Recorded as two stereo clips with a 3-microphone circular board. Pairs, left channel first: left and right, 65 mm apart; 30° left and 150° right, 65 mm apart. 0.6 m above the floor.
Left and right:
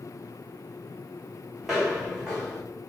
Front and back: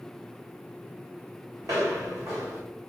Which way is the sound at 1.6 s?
170° right.